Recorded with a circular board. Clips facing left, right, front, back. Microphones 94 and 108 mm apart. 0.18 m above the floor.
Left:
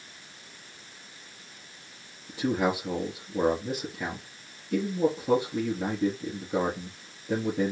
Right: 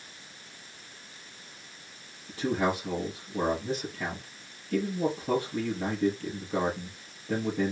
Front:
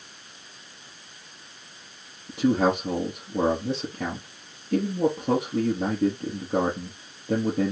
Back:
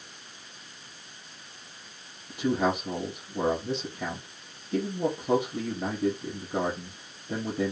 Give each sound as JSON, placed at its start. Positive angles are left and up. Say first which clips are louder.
{"t": 2.3, "sound": "a man speaking", "louder": "left 1 dB, front 5 dB", "azimuth_deg": 10, "distance_m": 4.0}